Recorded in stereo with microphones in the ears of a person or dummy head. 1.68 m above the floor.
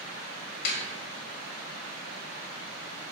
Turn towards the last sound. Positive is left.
turn(degrees=60)  # may be behind; listen again after turning